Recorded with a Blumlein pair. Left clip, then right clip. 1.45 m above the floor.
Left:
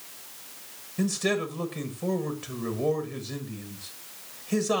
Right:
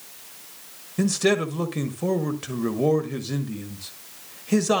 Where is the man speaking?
20° right, 1.1 m.